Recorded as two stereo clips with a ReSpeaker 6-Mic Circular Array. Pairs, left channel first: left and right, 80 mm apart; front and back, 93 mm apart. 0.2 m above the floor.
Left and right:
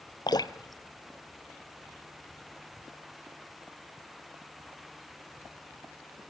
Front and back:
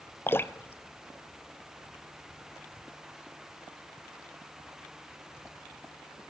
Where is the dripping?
65° left, 0.9 m.